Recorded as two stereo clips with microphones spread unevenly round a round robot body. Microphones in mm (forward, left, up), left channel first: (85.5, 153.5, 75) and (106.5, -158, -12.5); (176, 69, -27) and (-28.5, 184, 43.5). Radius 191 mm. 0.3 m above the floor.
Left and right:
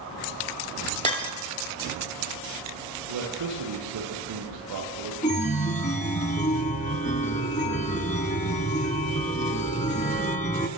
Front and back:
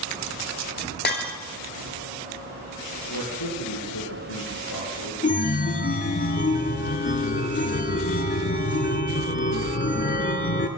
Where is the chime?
20° left, 2.5 m.